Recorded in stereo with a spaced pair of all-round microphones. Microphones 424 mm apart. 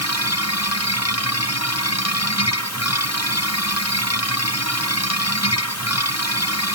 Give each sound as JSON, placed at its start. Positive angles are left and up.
{"t": 0.0, "sound": "a machine running", "side_deg": 35}